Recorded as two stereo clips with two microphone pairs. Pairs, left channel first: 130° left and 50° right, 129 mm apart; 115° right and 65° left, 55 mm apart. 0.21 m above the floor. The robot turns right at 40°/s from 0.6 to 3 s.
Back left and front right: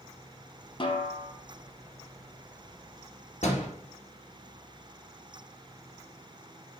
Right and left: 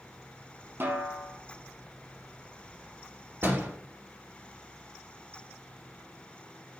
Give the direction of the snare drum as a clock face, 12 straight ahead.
9 o'clock.